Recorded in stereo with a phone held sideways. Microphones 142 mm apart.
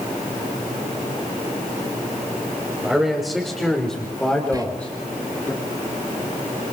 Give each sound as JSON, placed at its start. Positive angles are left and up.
{"t": 2.8, "sound": "a man speaking", "side_deg": 0, "distance_m": 5.0}
{"t": 4.5, "sound": "whispering", "side_deg": -25, "distance_m": 2.5}